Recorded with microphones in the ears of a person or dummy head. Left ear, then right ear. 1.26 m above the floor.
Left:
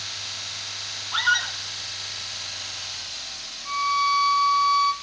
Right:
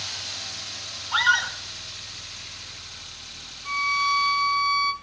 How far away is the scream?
About 4.5 m.